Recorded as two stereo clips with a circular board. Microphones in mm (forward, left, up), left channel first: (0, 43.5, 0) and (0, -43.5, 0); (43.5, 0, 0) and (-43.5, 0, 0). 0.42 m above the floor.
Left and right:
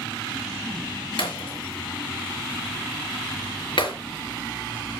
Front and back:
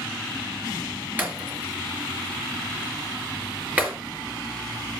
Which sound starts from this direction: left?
Breaking glass, at 1.2 s.